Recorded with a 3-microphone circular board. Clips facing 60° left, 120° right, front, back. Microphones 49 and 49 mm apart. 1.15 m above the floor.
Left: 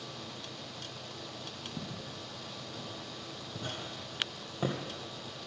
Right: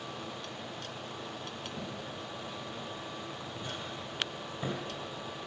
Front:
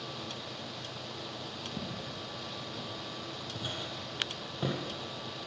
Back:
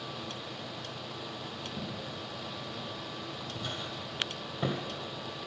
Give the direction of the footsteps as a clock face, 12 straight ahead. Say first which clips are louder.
Right 2 dB, back 1 dB; 11 o'clock.